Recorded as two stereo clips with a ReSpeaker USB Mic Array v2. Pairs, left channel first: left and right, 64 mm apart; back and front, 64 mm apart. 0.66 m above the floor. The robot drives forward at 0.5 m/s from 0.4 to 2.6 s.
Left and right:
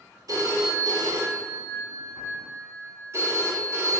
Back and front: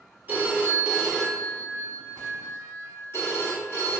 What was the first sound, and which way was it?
A phone ringing, 60° right.